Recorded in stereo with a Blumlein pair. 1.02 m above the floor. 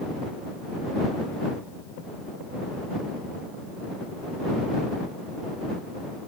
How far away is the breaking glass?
No breaking glass in this recording.